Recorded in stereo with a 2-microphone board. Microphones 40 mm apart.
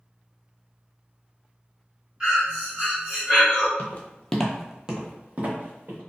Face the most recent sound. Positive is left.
turn(degrees=-45)  # may be behind; listen again after turning